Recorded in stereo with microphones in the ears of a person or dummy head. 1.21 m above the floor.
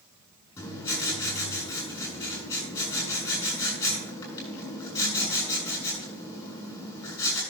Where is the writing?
20° left (ahead or behind), 9 m.